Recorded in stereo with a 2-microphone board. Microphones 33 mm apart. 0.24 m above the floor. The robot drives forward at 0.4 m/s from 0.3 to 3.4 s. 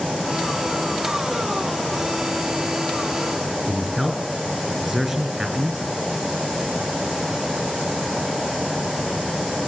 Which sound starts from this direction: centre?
A man speaking, at 3.7 s.